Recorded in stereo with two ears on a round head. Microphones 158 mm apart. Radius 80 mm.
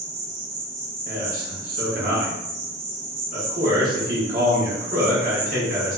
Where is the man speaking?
50° right (ahead or behind), 1.2 m.